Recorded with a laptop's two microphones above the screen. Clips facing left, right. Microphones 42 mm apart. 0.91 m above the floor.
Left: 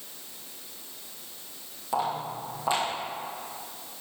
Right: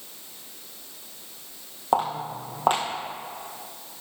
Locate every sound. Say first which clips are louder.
1.9 s footsteps: right 4 dB; 55° right (ahead or behind), 1.8 m